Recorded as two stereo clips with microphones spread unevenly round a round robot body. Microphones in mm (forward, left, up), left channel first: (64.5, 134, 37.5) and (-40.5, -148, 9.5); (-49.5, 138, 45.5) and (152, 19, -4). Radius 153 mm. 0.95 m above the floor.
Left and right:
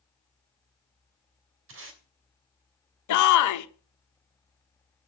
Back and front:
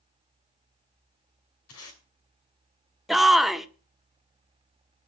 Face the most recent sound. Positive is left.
turn(degrees=50)